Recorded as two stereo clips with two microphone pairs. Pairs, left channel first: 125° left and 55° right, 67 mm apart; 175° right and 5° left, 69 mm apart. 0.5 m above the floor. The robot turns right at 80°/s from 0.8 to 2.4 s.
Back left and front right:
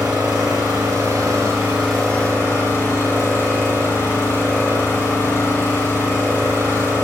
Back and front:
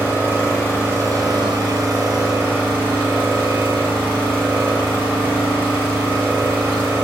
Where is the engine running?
55° right, 4 m; by 7.0 s 70° left, 4 m.